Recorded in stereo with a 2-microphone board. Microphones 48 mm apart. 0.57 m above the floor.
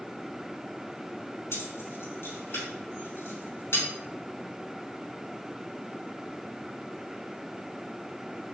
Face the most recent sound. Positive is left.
turn(degrees=60)  # may be behind; listen again after turning